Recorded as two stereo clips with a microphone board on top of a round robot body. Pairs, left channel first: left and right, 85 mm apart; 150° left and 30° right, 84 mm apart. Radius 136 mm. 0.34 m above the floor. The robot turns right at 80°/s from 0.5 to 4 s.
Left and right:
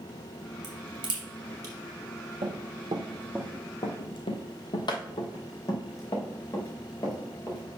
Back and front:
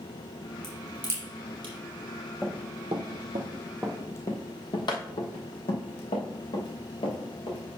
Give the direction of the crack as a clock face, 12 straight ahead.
4 o'clock.